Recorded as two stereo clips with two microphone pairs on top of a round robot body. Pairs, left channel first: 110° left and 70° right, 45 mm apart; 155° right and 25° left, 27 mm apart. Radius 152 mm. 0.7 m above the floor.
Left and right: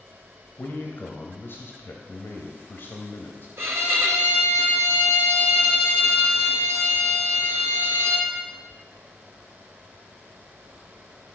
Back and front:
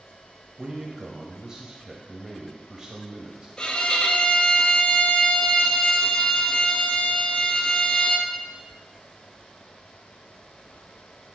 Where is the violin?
95° right, 1.3 m.